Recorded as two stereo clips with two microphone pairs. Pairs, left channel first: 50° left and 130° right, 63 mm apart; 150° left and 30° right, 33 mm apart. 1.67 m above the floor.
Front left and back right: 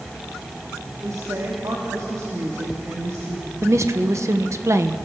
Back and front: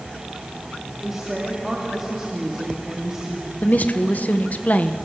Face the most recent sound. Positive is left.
turn(degrees=-170)